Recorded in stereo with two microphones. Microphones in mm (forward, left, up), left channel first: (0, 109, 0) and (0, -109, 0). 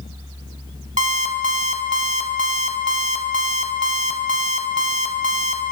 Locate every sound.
1.0 s an alarm clock: 35° right (ahead or behind), 0.6 m